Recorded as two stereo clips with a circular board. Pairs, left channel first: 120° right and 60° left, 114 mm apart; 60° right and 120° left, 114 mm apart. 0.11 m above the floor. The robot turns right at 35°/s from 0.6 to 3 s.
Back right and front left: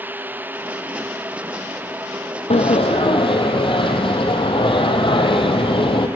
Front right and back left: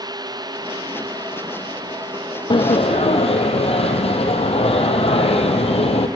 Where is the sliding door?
100° right, 1.0 m; by 6.1 s 85° right, 1.0 m.